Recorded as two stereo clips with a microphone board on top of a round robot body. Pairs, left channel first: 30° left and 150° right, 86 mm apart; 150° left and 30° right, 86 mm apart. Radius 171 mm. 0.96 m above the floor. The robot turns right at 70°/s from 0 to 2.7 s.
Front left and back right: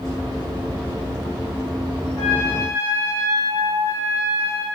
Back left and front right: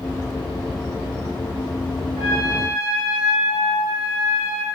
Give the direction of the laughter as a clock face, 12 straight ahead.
I don't hear laughter.